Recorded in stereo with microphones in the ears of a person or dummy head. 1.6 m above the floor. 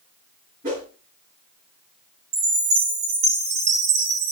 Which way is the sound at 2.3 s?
75° right (ahead or behind).